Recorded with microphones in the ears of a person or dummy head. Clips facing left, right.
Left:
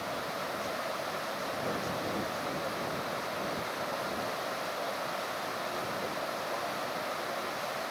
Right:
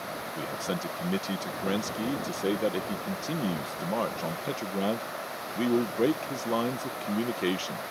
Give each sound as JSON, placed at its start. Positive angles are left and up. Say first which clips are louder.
{"t": 0.3, "sound": "a man speaking", "louder": "right 3 dB", "side_deg": -85}